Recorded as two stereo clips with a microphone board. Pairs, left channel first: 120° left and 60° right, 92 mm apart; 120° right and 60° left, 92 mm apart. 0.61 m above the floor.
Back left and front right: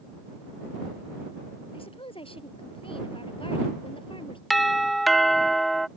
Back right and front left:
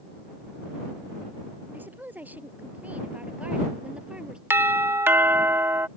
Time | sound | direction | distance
1.7 | a woman speaking | 130° left | ?
4.5 | a doorbell | 30° left | ?